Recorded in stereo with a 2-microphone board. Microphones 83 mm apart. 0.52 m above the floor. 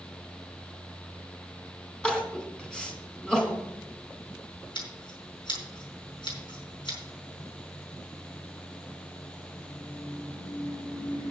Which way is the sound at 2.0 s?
10° left (ahead or behind).